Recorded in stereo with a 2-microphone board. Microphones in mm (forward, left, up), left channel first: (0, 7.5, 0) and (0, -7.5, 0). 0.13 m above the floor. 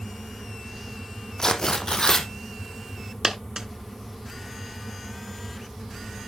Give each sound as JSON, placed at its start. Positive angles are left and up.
{"t": 1.4, "sound": "tearing paper", "side_deg": 45, "distance_m": 1.3}
{"t": 3.2, "sound": "a dropped coin", "side_deg": -35, "distance_m": 0.8}